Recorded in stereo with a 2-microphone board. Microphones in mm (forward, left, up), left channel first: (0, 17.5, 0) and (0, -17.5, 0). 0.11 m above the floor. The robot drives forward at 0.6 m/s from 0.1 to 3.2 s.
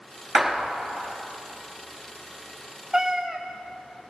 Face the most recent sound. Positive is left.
turn(degrees=-15)  # may be behind; listen again after turning